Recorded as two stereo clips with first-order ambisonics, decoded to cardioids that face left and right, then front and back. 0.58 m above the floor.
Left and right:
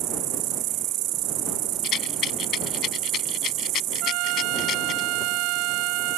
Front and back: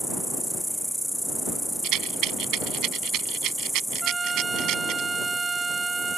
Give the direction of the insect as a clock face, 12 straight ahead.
3 o'clock.